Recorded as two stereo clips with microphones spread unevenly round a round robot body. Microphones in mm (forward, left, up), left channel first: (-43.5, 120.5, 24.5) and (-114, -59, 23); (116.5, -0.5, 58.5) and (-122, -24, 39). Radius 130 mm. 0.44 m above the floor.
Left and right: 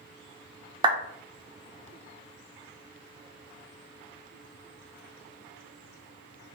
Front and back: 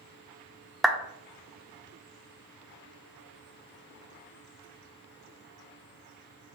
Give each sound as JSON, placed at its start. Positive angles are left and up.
{"t": 0.8, "sound": "a clap", "azimuth_deg": -95, "distance_m": 0.5}